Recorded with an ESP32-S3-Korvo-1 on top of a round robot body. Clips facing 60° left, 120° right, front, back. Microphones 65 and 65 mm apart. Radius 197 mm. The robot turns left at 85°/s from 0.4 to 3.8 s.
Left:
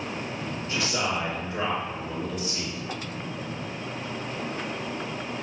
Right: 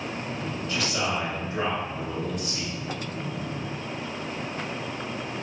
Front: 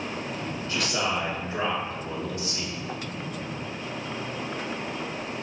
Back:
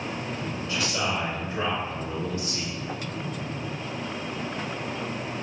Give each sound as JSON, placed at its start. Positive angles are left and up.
{"t": 0.7, "sound": "a man speaking", "azimuth_deg": 10, "distance_m": 1.8}